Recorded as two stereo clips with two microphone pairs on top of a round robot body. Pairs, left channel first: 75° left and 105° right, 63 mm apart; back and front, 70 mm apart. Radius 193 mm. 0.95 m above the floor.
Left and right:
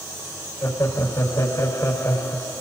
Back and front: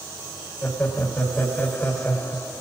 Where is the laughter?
115° left, 6.5 m.